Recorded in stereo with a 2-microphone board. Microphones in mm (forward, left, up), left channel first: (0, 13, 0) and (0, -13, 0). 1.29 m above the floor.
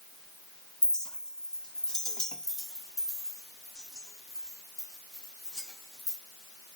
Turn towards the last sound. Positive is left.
turn(degrees=20)  # may be behind; listen again after turning